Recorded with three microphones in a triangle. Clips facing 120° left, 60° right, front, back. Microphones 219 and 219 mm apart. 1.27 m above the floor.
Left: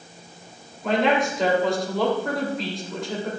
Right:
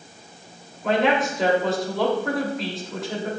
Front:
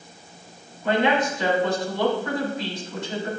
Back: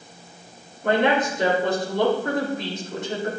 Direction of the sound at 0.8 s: 150° right.